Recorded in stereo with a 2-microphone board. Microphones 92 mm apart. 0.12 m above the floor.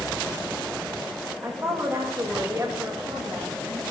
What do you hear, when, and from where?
1.4 s a woman speaking: 30° right (ahead or behind), 8.5 m